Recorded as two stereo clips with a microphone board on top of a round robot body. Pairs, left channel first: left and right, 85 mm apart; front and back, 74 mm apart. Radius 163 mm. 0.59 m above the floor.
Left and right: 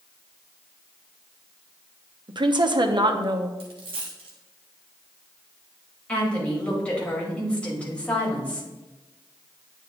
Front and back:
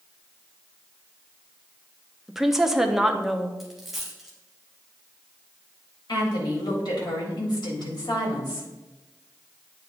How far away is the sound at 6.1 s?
About 3.5 m.